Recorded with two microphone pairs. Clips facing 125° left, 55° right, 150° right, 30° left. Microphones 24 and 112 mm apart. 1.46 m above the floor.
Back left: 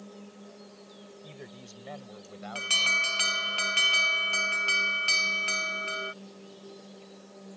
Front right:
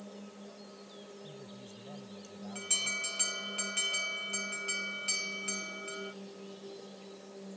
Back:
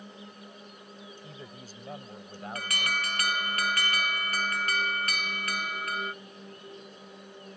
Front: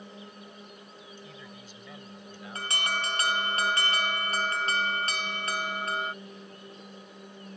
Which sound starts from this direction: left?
An alarm, at 2.5 s.